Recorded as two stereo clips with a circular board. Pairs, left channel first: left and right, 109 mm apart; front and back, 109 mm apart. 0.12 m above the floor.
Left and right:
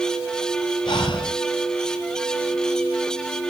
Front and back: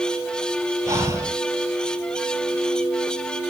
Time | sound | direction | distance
0.9 | breathing | 120° left | 1.9 m